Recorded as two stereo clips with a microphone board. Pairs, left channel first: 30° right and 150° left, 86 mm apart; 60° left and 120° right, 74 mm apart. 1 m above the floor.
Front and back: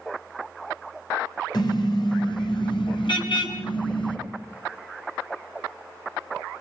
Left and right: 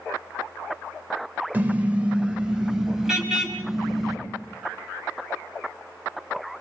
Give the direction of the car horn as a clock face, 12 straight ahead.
2 o'clock.